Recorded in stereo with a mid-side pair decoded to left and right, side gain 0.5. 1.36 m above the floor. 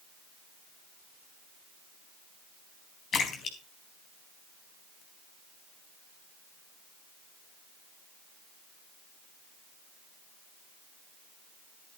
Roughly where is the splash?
Ahead left.